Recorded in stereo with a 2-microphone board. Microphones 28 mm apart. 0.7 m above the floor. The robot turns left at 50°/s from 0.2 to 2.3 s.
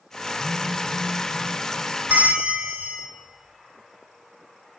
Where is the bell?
70° right (ahead or behind), 3 m; by 3.0 s 60° right (ahead or behind), 3 m.